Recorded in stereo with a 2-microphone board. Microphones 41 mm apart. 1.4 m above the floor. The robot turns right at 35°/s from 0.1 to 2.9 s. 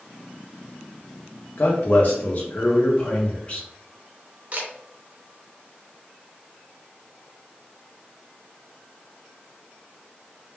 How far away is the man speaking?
About 0.5 m.